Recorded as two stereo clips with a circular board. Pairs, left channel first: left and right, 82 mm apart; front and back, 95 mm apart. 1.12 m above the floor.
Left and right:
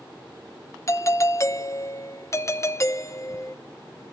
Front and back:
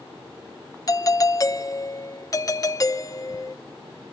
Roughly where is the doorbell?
Ahead left.